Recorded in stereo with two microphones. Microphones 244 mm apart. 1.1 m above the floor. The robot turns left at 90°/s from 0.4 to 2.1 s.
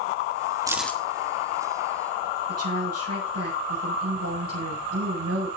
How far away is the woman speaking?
About 6.5 m.